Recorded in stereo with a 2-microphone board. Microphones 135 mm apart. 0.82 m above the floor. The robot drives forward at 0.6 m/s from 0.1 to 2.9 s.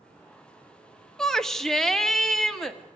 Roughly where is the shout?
Centre.